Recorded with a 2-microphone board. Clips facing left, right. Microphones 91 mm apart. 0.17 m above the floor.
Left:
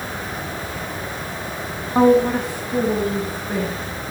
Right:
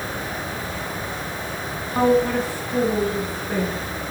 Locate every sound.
1.9 s a woman speaking: 25° left (ahead or behind), 1.7 m; by 3.8 s centre (ahead or behind), 2.5 m